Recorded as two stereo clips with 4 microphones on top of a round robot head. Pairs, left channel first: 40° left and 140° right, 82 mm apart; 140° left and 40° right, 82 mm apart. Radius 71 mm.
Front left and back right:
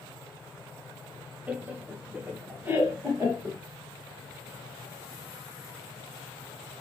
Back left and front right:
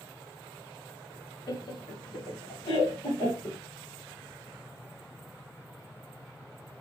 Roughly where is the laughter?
Behind left.